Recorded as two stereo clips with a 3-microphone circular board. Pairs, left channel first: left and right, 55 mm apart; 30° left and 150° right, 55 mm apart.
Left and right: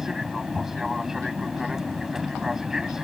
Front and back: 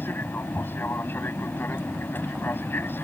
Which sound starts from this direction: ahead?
An aircraft, at 0.0 s.